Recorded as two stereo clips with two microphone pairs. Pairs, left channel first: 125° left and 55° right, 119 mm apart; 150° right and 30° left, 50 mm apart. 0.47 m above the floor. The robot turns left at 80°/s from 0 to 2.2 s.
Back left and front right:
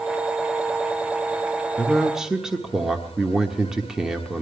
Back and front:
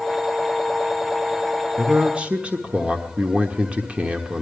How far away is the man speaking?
About 1.2 m.